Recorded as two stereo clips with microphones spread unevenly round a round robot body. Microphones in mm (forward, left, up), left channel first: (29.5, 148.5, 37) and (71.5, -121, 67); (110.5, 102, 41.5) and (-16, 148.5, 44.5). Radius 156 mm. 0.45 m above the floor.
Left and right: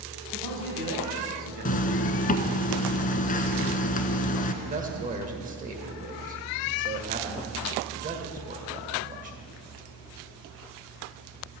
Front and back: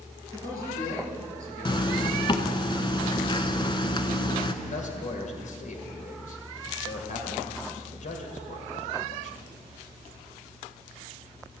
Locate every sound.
0.3 s a man speaking: 85° right, 3.5 m
1.6 s a zipper: 35° left, 1.1 m
4.6 s a man speaking: 20° right, 2 m